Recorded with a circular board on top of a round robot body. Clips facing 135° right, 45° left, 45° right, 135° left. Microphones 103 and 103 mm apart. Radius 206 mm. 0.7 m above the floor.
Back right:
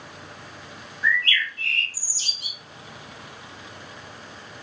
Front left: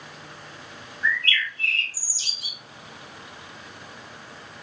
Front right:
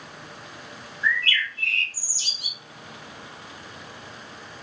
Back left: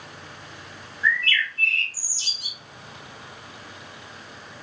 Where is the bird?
30° right, 2.5 m.